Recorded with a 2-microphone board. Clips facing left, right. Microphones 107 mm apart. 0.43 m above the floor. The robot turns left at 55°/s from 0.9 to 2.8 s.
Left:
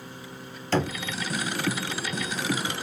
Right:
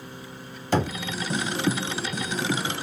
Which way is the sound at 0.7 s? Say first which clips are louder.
Right 1 dB; 15° right (ahead or behind).